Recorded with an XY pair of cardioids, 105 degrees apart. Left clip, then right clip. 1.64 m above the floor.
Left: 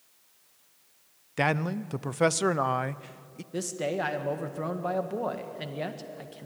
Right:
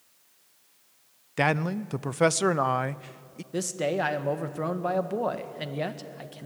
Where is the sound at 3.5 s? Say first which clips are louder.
Right 3 dB; 20° right, 1.7 m.